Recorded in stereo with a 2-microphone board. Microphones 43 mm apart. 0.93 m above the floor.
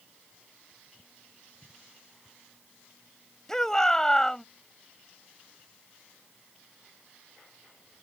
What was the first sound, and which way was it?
A shout, 10° left (ahead or behind).